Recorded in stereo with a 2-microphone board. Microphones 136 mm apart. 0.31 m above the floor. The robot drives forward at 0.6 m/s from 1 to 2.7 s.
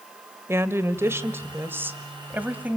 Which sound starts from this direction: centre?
A woman speaking, at 0.5 s.